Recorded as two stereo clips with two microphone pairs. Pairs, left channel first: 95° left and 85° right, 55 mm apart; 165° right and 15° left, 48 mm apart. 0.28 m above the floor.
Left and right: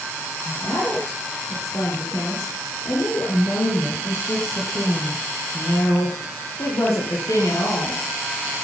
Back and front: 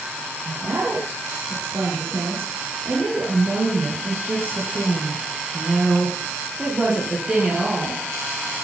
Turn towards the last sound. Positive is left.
turn(degrees=100)